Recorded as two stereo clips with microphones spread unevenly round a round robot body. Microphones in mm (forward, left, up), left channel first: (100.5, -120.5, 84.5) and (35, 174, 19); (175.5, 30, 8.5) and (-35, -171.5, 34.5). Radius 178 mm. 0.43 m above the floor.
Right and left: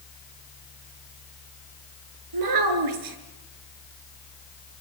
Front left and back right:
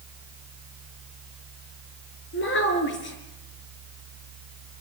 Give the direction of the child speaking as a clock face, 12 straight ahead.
9 o'clock.